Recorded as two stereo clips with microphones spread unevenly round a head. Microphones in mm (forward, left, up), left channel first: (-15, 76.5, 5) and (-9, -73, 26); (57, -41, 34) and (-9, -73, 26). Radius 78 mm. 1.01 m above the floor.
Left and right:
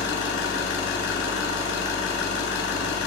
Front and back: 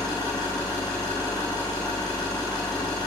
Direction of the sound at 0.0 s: 85° left.